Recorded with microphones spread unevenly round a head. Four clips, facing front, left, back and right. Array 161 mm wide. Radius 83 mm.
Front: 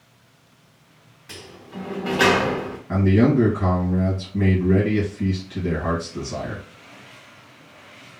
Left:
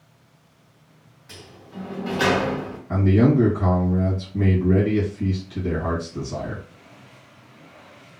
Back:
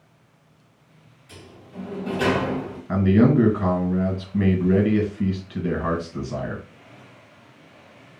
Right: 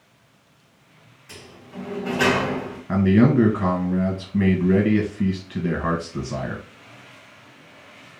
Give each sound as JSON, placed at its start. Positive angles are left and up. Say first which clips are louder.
{"t": 1.3, "sound": "a sliding door", "louder": "right 1 dB, front 4 dB", "azimuth_deg": -5, "distance_m": 0.8}
{"t": 2.9, "sound": "a man speaking", "louder": "right 1 dB, even", "azimuth_deg": -95, "distance_m": 1.5}